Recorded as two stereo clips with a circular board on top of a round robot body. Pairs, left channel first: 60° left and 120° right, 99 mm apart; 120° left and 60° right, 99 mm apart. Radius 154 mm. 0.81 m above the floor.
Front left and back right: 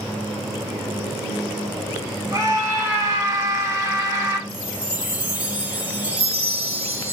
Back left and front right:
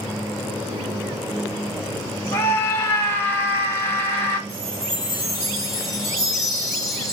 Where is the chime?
170° left, 3 m.